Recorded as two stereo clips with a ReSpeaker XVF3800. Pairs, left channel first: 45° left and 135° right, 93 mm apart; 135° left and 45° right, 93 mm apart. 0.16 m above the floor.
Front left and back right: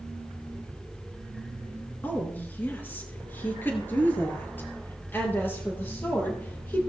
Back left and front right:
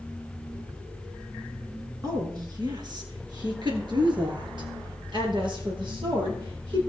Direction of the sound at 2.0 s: 20° right.